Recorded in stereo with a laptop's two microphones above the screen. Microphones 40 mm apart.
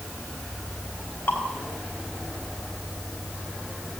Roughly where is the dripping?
Left.